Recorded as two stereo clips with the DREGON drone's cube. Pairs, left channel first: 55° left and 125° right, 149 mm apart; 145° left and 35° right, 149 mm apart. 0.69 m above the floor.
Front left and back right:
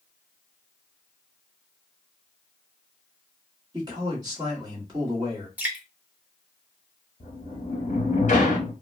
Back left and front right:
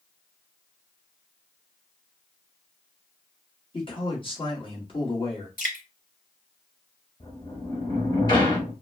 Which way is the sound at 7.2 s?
90° left.